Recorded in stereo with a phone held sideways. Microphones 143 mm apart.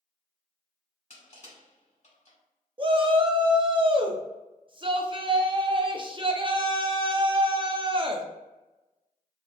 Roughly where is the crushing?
Left.